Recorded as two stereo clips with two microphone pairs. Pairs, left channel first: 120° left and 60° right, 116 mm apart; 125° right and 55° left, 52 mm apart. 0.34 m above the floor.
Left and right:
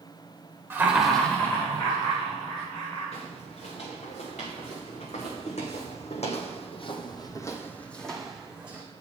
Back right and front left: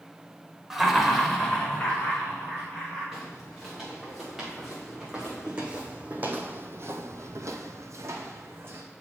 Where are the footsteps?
145° left, 2.5 m; by 8.8 s 15° left, 1.2 m.